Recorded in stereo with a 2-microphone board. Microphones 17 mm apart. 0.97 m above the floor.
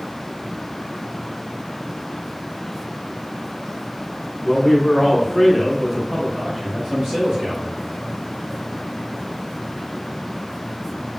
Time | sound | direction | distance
4.4 | a man speaking | 45° left (ahead or behind) | 1.1 m